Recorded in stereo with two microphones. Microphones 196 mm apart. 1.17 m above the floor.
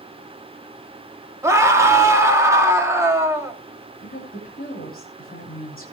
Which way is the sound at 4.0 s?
45° left (ahead or behind).